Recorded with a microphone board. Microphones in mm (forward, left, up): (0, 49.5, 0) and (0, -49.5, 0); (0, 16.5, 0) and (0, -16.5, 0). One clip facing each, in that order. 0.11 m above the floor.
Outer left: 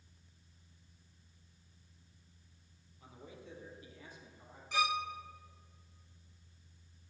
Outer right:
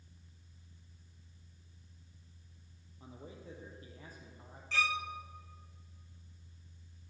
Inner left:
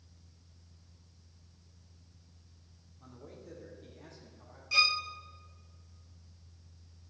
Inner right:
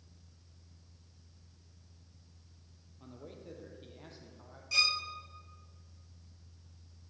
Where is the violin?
15° left (ahead or behind), 0.6 m.